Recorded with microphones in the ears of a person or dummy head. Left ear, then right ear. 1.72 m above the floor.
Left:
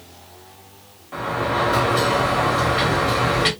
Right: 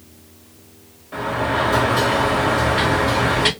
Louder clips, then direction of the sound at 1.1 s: Right 1 dB; centre (ahead or behind).